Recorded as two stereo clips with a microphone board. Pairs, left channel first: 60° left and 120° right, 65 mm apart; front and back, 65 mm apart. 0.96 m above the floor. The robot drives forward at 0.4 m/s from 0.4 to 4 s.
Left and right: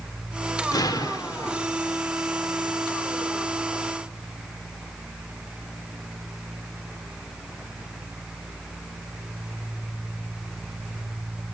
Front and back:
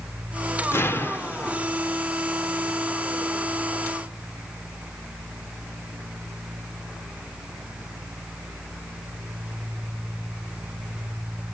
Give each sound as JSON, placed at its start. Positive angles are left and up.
{"t": 0.7, "sound": "an explosion", "azimuth_deg": 50, "distance_m": 1.4}